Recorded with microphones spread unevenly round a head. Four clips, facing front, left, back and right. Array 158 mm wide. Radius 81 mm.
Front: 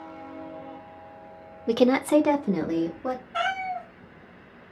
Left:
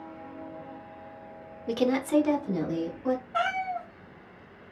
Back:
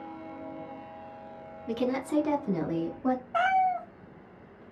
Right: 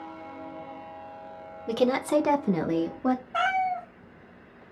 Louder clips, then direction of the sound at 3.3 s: Right 3 dB, back 6 dB; 155° right.